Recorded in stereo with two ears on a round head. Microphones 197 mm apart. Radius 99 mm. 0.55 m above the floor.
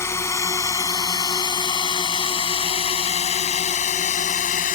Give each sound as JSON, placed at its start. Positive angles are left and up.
{"t": 0.0, "sound": "a drone", "side_deg": 10}